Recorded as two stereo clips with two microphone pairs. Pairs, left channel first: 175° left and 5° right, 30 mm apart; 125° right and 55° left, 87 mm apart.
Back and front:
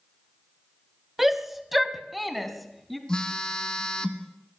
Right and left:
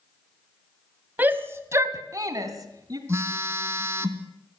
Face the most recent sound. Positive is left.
turn(degrees=115)